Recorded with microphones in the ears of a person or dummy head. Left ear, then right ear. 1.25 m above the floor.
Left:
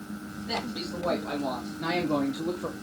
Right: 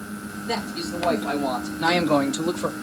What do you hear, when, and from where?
0.5 s a man speaking: 5° right (ahead or behind), 2.5 m; by 2.7 s 70° right (ahead or behind), 1.1 m